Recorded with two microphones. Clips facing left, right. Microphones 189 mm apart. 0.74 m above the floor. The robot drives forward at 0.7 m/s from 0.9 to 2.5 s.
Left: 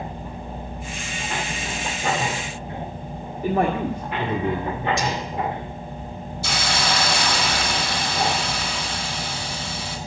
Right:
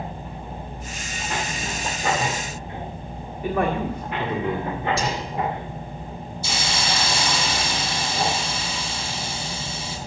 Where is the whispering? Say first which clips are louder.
Left 1 dB; 35° right (ahead or behind), 3 m.